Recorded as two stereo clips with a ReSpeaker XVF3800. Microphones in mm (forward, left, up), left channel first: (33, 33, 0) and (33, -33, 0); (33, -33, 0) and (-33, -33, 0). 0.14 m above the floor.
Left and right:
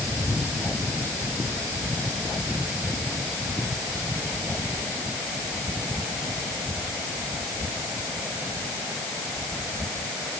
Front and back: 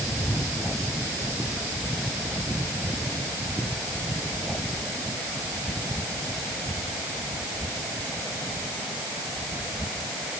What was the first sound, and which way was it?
Only background noise.